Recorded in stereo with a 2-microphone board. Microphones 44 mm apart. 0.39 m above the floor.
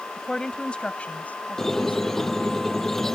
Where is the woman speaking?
15° left (ahead or behind); by 2.6 s 60° left (ahead or behind).